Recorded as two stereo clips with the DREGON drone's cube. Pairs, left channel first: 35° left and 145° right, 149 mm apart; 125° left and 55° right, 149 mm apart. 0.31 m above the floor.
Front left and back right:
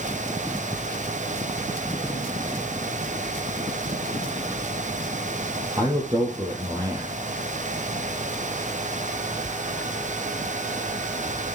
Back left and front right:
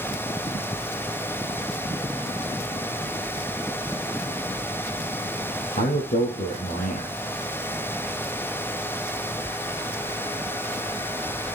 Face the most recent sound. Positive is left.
turn(degrees=150)